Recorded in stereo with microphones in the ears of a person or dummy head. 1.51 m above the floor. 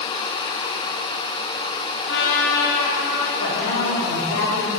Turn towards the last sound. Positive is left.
turn(degrees=55)  # may be behind; listen again after turning